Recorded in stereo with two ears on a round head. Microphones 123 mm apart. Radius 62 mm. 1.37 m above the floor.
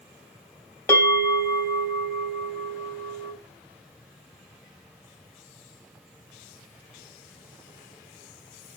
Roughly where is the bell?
Centre.